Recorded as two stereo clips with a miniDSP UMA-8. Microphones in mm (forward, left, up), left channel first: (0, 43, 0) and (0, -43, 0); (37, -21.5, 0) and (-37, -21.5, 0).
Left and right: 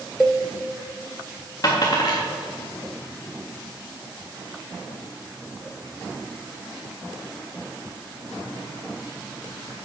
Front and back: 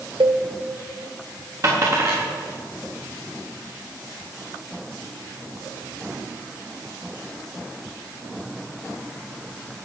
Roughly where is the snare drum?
I don't hear a snare drum.